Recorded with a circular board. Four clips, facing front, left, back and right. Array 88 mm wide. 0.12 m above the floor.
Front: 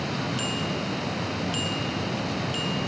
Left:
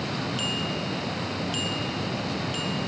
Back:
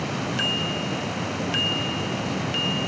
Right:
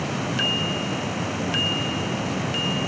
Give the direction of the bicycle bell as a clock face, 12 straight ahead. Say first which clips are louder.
Right 4 dB, back 2 dB; 4 o'clock.